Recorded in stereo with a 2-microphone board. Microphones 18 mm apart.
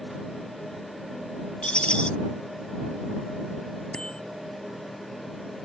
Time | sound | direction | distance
1.6 | a rattle | 70° left (ahead or behind) | ?
3.9 | a bicycle bell | 60° left (ahead or behind) | ?